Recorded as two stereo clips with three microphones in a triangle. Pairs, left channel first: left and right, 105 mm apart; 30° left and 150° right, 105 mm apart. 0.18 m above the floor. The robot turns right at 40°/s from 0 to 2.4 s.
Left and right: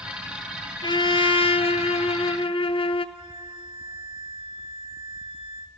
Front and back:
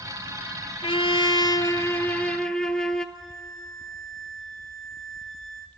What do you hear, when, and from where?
0.8 s a trumpet: 50° left, 0.8 m; by 3.0 s 115° left, 0.8 m
3.1 s a violin: 55° right, 1.4 m